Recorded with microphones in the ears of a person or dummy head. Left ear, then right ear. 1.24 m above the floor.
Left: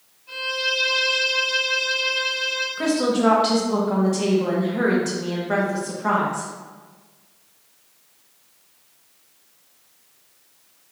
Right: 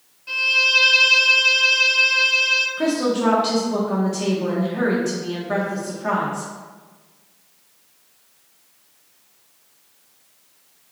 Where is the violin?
60° right (ahead or behind), 0.8 m.